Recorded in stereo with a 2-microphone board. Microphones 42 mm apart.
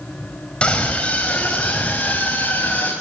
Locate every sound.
0.6 s a scream: 25° left (ahead or behind), 4 m; by 2.9 s 35° left (ahead or behind), 5 m